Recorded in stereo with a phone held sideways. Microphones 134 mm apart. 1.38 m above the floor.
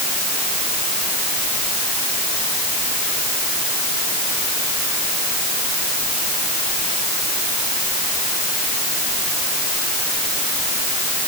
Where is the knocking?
No knocking in this recording.